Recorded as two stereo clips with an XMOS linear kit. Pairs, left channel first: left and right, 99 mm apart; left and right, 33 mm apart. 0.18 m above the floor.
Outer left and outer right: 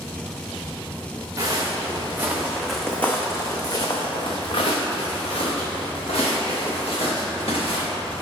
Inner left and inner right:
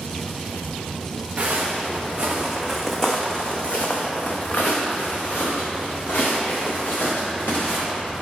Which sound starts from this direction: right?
Footsteps, at 1.4 s.